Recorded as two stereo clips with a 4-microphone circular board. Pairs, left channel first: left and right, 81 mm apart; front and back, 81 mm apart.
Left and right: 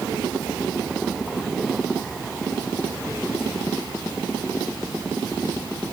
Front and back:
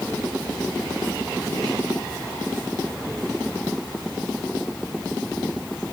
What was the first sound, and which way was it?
Only background noise.